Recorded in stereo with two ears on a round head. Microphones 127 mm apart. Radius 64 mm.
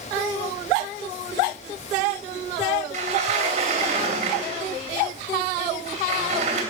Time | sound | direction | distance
2.9 | a sliding door | 45° right (ahead or behind) | 3 m